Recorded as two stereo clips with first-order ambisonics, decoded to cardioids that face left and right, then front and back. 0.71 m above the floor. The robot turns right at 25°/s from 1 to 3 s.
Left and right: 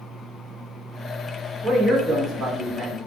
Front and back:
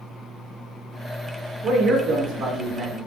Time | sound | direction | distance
1.6 | a man speaking | 155° right | 0.8 m